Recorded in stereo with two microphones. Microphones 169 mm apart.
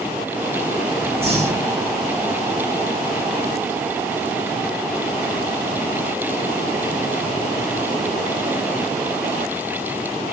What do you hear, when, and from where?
1.2 s breathing: 35° right (ahead or behind), 1.1 m